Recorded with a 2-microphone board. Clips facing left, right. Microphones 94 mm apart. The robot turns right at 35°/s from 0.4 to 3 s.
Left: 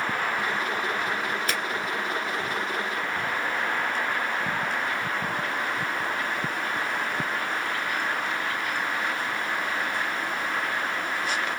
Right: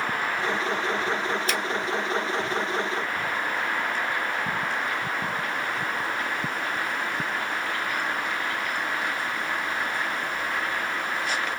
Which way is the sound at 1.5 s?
45° left (ahead or behind).